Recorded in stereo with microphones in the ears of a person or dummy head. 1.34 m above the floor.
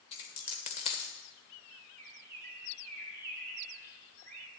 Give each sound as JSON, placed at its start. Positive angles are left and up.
{"t": 0.1, "sound": "a dropped coin", "side_deg": 30, "distance_m": 1.2}
{"t": 2.0, "sound": "a bird", "side_deg": -45, "distance_m": 2.5}